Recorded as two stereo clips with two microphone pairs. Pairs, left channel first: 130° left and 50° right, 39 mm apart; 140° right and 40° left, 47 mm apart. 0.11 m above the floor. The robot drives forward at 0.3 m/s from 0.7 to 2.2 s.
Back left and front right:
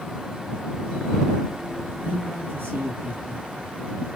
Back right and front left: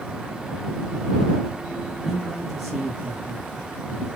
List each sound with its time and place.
2.0 s a man speaking: 40° right, 2.5 m